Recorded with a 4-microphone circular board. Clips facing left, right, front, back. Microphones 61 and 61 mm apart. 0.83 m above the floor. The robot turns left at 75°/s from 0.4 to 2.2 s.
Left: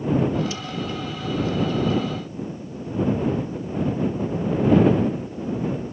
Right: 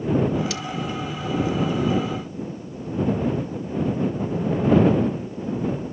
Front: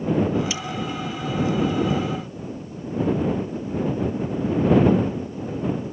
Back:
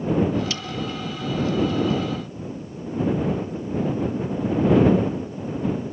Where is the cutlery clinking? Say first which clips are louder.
Right 2 dB, front 1 dB; 75° right; by 0.6 s 85° right.